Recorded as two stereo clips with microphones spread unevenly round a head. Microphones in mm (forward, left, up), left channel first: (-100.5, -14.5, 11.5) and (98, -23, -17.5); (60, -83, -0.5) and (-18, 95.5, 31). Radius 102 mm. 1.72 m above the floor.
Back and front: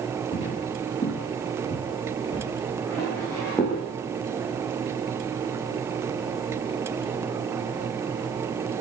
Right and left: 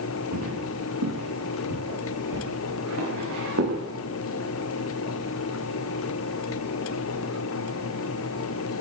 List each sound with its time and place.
0.3 s footsteps: 115° left, 9.5 m; by 3.8 s 100° left, 13.5 m